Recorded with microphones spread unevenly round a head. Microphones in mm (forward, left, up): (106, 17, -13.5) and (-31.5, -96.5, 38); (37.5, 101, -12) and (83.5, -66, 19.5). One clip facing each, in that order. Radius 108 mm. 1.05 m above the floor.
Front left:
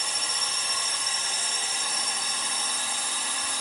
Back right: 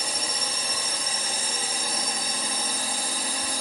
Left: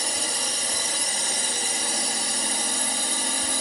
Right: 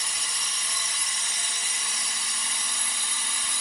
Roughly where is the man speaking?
No man speaking in this recording.